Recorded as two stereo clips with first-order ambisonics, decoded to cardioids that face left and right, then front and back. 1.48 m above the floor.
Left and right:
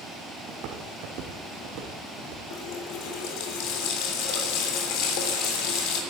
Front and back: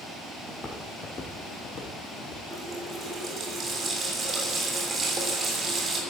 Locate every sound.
0.5 s footsteps: 85° right, 2.5 m; by 2.4 s 60° right, 5 m
2.5 s a running tap: 110° left, 3 m